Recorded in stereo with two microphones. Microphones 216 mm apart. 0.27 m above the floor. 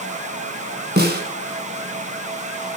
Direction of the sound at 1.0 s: 50° right (ahead or behind).